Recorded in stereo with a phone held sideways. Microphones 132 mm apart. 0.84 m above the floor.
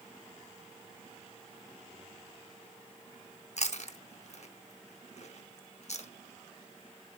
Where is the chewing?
60° left (ahead or behind), 0.8 m.